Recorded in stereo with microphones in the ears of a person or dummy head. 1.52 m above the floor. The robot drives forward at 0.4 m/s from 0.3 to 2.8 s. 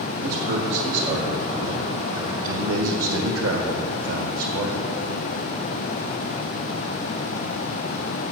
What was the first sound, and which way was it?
A man speaking, 55° right (ahead or behind).